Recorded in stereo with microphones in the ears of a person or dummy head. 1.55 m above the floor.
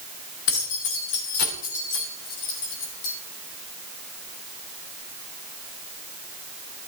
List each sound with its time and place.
0.5 s keys jangling: 65° left (ahead or behind), 2.5 m; by 3.1 s 75° left (ahead or behind), 5 m